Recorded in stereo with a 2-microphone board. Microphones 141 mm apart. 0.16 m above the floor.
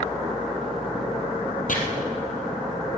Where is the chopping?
70° left (ahead or behind), 3 m.